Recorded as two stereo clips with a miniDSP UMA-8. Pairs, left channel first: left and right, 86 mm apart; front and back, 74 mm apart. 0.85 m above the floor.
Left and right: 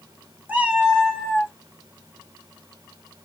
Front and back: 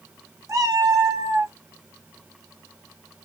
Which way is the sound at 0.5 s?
155° right.